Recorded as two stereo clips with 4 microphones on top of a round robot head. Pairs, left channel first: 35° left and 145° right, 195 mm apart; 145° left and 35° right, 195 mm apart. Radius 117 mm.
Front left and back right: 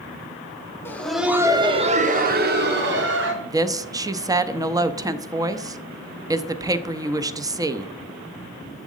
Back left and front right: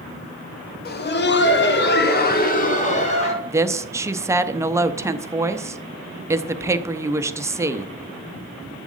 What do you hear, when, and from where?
0.8 s laughter: 115° left, 1.4 m; by 3.3 s 160° right, 2.5 m
3.4 s a woman speaking: 95° right, 0.7 m